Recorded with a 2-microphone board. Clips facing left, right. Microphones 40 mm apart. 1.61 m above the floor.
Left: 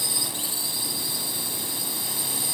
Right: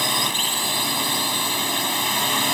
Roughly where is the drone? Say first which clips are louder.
Right 10 dB; right.